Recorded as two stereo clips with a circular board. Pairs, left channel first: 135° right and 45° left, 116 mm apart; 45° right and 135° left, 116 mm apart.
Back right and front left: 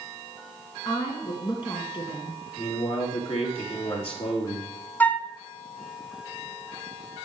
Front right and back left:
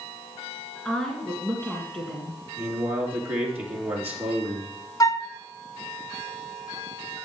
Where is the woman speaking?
125° right, 2 m.